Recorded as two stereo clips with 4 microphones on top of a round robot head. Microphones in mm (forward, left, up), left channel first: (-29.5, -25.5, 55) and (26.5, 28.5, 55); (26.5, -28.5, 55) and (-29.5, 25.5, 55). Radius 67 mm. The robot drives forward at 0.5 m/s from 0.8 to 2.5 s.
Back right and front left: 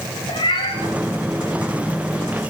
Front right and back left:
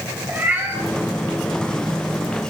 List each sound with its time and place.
0.3 s a cat meowing: 155° right, 8 m